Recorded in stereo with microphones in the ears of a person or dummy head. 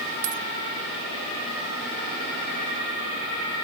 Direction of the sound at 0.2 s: 75° right (ahead or behind).